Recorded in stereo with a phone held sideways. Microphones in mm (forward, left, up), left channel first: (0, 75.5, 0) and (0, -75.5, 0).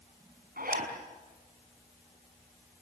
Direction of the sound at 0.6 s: 75° right (ahead or behind).